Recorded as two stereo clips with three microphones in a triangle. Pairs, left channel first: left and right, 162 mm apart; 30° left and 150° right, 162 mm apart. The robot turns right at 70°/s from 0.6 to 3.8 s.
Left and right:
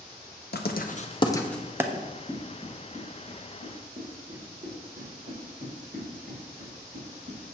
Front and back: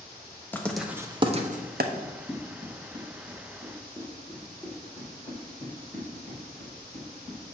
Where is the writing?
110° left, 0.6 m; by 1.8 s 165° right, 0.6 m.